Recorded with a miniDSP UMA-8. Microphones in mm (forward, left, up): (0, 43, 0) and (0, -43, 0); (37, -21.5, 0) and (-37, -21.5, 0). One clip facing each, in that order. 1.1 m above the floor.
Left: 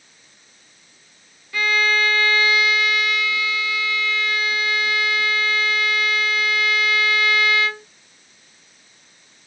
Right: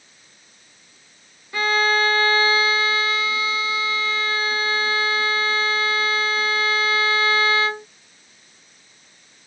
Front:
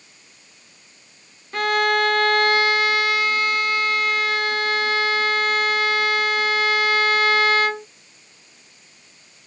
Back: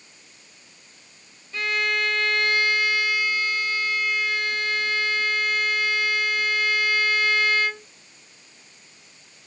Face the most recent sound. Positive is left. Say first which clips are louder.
# right 1 dB, front 6 dB
turn(degrees=-30)